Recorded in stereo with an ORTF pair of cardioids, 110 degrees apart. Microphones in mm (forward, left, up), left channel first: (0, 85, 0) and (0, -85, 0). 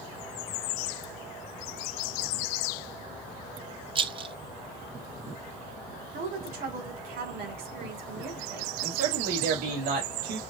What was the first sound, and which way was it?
A rattle, 30° right.